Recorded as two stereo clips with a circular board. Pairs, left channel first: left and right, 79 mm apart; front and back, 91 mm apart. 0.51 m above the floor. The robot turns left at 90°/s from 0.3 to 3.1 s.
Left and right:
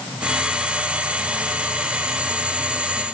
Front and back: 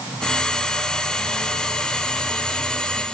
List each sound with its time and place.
Only background noise.